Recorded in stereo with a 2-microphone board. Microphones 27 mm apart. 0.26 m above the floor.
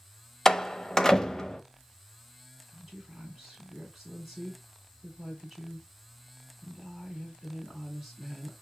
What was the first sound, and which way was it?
A door slam, 20° left (ahead or behind).